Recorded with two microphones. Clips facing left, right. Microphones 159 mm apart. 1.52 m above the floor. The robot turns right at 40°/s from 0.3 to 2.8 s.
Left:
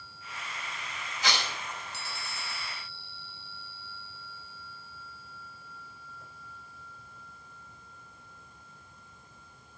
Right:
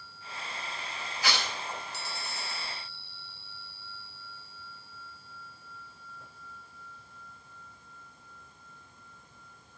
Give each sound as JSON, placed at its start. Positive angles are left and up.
{"t": 1.2, "sound": "tearing paper", "side_deg": 20, "distance_m": 4.0}